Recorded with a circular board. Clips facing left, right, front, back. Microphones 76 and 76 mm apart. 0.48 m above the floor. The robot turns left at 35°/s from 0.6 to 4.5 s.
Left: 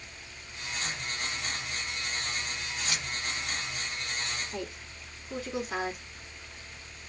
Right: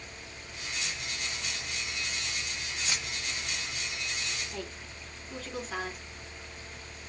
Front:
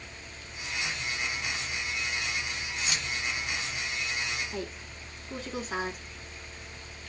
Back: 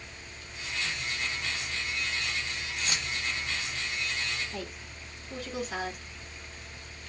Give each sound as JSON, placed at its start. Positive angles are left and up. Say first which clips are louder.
{"t": 2.8, "sound": "keys jangling", "louder": "even, even", "azimuth_deg": -145, "distance_m": 1.0}
{"t": 4.5, "sound": "a woman speaking", "louder": "left 2 dB, front 2 dB", "azimuth_deg": 25, "distance_m": 1.2}